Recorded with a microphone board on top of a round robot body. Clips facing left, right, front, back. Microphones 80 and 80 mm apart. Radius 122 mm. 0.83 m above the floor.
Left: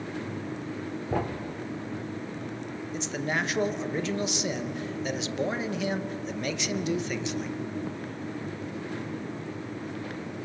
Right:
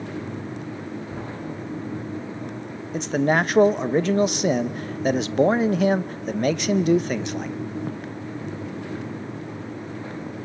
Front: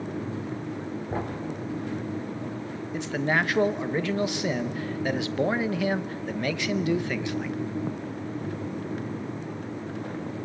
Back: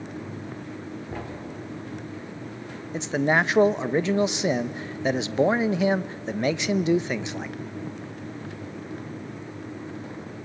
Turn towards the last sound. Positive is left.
turn(degrees=-115)